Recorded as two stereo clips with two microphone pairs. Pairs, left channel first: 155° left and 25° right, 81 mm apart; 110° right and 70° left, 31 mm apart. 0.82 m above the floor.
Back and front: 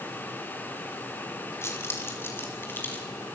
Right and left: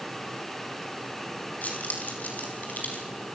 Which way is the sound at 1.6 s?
145° right.